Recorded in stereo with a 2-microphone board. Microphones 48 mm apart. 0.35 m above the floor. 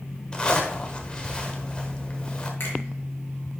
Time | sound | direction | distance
0.3 | a zipper | 20° left (ahead or behind) | 1.2 m
2.6 | a finger snap | 55° left (ahead or behind) | 4 m